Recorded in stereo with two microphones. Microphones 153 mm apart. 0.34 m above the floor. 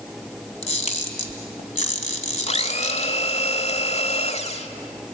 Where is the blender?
45° left (ahead or behind), 1.1 m.